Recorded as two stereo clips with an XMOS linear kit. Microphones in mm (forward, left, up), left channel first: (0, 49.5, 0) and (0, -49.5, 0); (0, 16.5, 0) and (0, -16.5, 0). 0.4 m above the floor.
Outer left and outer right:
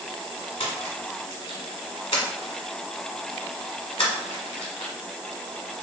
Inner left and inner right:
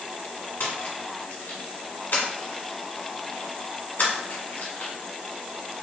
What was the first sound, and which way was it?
A splash, 85° left.